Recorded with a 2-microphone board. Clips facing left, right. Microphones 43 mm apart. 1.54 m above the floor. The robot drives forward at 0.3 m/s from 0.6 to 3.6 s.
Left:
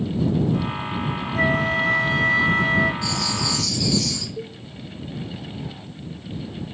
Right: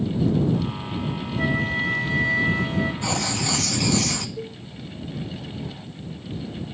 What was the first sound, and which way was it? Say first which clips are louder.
A flute: left 4 dB; 80° left.